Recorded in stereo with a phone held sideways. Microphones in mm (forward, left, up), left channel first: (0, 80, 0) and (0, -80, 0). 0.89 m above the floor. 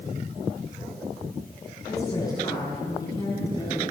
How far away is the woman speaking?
About 9.5 m.